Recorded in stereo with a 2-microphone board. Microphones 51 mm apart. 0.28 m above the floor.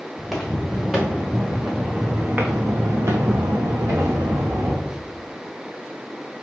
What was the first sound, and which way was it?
Footsteps, centre (ahead or behind).